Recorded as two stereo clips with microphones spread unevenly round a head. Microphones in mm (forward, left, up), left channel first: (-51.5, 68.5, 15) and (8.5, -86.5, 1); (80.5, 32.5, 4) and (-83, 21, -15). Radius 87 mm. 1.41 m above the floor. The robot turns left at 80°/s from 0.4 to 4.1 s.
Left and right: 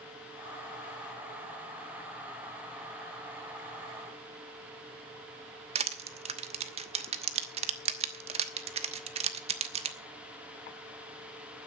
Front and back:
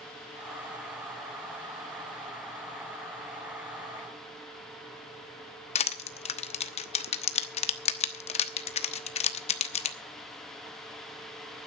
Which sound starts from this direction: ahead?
Crushing, at 5.8 s.